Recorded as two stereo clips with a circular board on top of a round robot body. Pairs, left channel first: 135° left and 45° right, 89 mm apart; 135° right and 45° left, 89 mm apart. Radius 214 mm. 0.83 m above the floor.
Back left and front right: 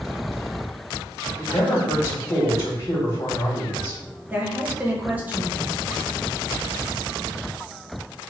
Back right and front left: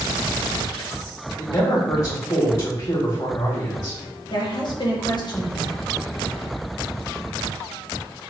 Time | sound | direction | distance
1.4 | a man speaking | 175° right | 2 m
4.3 | a woman speaking | 115° right | 1.6 m